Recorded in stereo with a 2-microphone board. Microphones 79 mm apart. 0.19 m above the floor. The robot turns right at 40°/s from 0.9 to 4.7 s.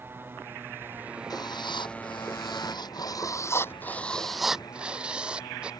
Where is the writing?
55° left; by 5.7 s 165° right.